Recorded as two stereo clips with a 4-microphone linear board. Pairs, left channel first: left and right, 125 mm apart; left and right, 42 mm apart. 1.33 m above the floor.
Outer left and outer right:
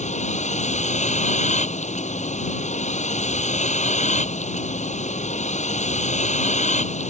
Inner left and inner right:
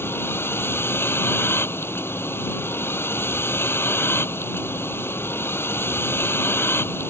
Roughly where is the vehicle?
Left.